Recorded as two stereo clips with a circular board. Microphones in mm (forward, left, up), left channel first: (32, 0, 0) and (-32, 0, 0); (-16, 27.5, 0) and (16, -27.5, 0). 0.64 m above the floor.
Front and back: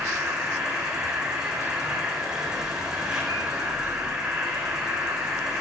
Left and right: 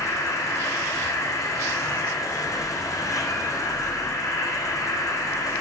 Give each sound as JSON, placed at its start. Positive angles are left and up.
{"t": 0.0, "sound": "an insect", "azimuth_deg": 105, "distance_m": 7.0}